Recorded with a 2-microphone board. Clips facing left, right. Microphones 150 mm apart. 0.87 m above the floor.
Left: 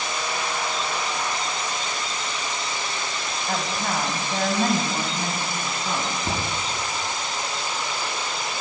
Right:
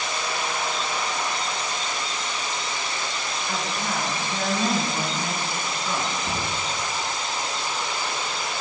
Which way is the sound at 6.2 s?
50° left (ahead or behind).